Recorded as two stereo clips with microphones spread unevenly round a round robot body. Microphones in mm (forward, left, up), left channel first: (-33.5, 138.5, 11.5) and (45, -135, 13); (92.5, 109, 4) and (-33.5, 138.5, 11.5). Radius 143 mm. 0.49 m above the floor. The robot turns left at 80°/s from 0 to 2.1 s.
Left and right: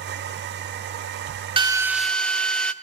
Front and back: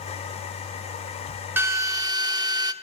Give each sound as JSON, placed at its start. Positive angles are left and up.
{"t": 1.6, "sound": "a drill", "azimuth_deg": -130, "distance_m": 1.0}